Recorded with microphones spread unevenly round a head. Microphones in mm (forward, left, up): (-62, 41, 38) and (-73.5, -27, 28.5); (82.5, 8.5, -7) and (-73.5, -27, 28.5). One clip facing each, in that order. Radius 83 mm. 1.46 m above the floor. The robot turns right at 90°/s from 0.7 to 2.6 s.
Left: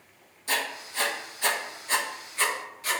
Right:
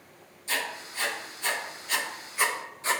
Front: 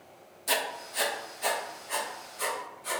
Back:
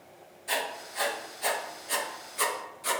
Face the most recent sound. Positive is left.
turn(degrees=-155)